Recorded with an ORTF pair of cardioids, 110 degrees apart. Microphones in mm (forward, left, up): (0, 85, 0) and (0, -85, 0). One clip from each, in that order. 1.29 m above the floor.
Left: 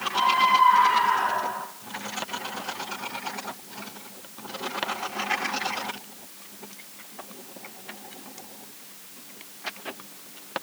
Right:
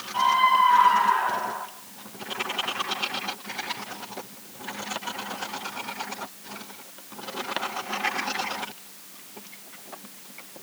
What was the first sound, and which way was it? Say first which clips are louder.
A scream: even; 10° right.